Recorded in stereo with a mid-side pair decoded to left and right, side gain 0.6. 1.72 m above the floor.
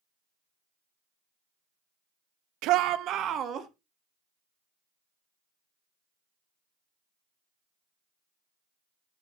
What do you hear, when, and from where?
2.6 s a shout: 70° right, 0.8 m; by 3.7 s 50° right, 1.5 m